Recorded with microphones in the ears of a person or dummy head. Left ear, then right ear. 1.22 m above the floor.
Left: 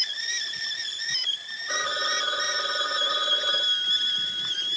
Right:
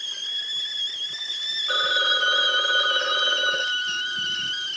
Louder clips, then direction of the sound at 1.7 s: Right 5 dB; 70° right (ahead or behind).